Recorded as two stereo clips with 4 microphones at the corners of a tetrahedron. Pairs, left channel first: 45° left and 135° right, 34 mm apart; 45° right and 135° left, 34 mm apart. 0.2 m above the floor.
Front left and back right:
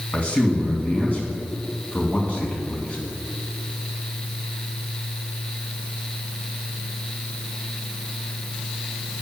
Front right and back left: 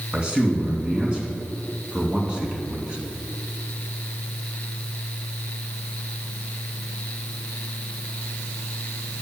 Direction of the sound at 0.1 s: 80° left.